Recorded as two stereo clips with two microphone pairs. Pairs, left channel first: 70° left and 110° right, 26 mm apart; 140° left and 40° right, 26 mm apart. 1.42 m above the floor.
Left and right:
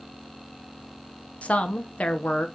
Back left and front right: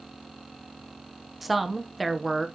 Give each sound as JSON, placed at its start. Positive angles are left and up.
{"t": 1.4, "sound": "a woman speaking", "azimuth_deg": 45, "distance_m": 0.9}